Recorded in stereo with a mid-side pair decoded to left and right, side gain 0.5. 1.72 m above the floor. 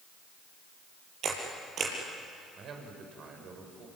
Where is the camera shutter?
55° right, 6.5 m.